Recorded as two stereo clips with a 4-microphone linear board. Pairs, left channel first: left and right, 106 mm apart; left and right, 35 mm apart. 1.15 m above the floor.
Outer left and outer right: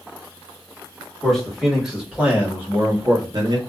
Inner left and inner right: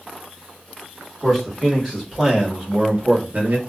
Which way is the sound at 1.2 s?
Centre (ahead or behind).